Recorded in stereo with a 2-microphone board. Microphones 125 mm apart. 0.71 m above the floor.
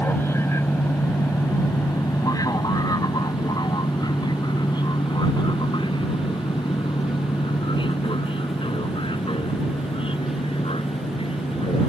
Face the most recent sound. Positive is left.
turn(degrees=45)  # may be behind; listen again after turning